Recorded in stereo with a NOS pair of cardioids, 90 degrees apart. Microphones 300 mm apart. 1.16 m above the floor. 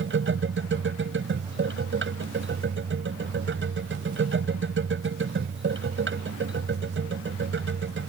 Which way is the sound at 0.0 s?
40° right.